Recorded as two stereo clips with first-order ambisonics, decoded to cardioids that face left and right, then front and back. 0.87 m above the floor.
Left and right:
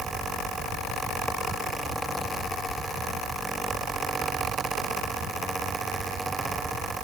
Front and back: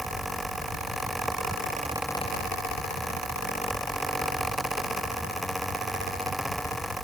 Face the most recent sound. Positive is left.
No sound to turn to.